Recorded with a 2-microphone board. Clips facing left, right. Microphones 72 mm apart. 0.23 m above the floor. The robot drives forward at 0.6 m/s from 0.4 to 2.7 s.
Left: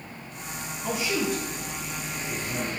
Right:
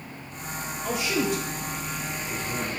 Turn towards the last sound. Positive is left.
turn(degrees=10)  # may be behind; listen again after turning